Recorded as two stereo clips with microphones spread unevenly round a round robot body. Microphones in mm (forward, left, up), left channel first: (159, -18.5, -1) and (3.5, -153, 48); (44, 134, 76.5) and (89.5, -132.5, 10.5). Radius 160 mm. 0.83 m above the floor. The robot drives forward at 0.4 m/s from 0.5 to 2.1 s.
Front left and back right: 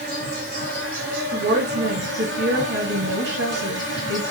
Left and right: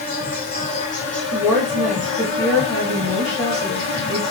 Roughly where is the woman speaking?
Behind.